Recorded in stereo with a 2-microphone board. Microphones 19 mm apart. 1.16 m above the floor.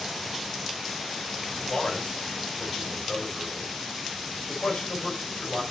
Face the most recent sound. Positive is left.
turn(degrees=85)